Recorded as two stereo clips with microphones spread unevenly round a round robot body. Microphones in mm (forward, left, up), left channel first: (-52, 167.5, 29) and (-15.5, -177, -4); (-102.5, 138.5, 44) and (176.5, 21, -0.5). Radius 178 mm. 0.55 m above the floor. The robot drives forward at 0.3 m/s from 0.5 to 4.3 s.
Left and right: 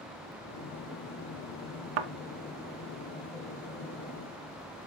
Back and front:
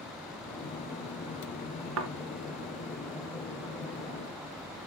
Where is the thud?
80° right, 1.1 m.